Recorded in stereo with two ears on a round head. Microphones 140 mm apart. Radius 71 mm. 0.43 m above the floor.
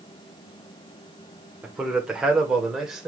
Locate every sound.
1.6 s a man speaking: 5° right (ahead or behind), 1.3 m